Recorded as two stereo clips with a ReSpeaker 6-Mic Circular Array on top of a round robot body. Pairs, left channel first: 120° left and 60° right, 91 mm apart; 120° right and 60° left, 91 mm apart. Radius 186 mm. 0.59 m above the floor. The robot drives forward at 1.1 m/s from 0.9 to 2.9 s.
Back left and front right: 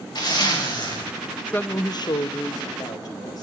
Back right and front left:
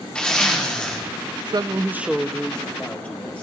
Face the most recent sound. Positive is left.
turn(degrees=165)